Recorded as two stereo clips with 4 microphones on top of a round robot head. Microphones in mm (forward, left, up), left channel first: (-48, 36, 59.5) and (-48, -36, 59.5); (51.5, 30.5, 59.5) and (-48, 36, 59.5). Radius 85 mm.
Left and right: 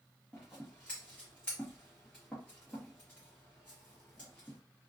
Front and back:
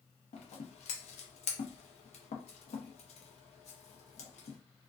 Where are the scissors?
10° left, 0.7 m.